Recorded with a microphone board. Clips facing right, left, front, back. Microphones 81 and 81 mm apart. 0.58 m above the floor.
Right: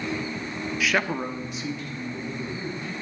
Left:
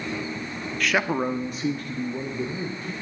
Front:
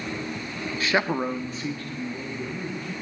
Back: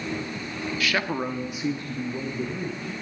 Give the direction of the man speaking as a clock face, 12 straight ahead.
12 o'clock.